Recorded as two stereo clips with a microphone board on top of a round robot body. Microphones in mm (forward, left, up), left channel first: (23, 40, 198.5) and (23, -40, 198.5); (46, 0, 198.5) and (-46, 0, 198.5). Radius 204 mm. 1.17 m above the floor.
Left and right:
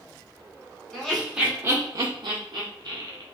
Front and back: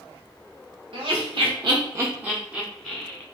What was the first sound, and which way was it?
Laughter, 170° left.